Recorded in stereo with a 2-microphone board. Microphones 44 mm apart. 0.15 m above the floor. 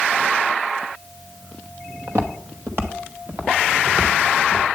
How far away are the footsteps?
About 1.5 m.